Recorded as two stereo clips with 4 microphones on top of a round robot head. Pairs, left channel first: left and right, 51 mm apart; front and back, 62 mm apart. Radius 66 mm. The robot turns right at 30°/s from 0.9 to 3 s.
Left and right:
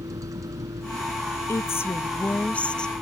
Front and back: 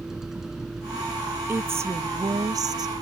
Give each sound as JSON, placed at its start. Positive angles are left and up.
{"t": 0.0, "sound": "a vehicle", "azimuth_deg": -95}
{"t": 1.5, "sound": "a woman speaking", "azimuth_deg": 125}